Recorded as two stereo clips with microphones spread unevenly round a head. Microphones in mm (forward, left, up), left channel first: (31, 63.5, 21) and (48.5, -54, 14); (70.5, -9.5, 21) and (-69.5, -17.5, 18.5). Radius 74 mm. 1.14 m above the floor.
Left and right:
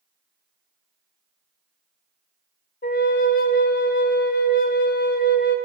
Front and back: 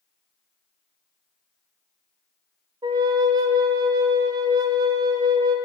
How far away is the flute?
About 0.5 m.